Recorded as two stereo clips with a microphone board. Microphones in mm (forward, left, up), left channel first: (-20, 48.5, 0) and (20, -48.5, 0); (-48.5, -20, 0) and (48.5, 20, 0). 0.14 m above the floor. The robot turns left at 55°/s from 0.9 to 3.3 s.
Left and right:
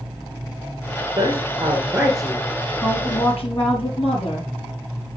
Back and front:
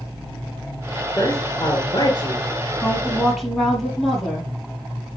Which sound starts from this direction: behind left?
A woman speaking, at 2.8 s.